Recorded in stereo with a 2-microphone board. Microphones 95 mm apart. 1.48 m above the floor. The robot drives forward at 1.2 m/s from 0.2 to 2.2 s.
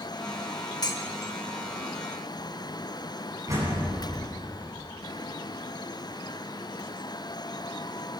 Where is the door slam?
35° right (ahead or behind), 10 m.